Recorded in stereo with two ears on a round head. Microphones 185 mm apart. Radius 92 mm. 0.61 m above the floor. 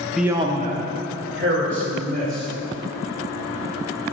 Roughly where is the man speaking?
Centre.